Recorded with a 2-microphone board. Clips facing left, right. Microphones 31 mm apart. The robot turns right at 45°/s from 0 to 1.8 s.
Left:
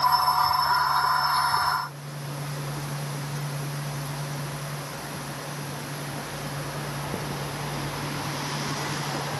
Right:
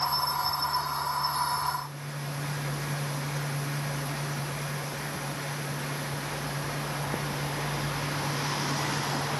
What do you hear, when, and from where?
Only background noise.